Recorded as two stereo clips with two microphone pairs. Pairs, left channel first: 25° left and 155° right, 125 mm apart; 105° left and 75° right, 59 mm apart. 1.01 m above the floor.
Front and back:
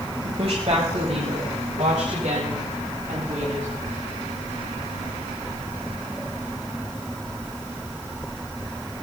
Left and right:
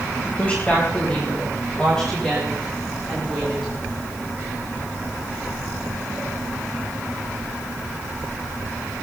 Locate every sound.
0.2 s a woman speaking: 170° left, 5 m; by 3.7 s 170° right, 7.5 m